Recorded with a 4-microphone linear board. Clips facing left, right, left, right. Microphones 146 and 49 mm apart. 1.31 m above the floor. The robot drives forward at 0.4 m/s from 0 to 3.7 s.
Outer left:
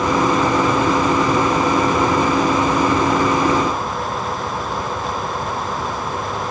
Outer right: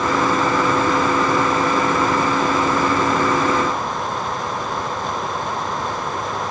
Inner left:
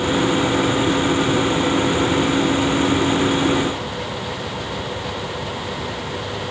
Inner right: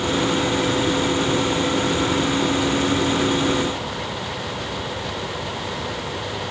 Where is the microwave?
I don't hear a microwave.